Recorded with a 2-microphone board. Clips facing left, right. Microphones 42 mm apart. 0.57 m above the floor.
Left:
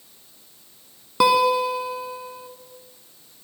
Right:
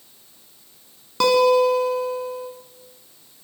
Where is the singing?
I don't hear singing.